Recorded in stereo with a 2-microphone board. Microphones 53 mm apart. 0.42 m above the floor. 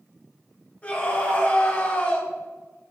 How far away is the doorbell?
I don't hear a doorbell.